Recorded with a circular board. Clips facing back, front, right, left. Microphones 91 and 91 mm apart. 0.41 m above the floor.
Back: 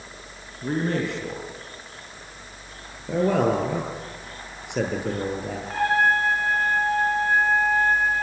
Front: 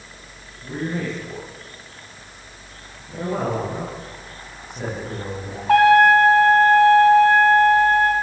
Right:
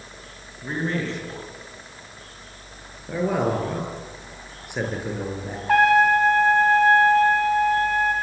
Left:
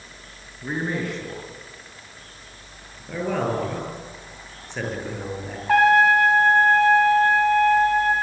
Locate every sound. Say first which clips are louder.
0.6 s a man speaking: back 2 dB, even; 165° left, 6 m
3.1 s a man speaking: back 4 dB, right 2 dB; 170° right, 8 m
5.7 s a trumpet: front 9 dB, left 1 dB; straight ahead, 3 m